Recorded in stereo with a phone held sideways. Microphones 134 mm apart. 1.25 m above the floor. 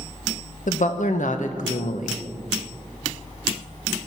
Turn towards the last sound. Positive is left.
turn(degrees=70)  # may be behind; listen again after turning